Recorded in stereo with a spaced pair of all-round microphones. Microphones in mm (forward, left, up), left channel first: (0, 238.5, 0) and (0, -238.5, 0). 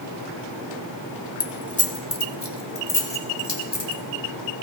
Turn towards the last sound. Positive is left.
turn(degrees=60)  # may be behind; listen again after turning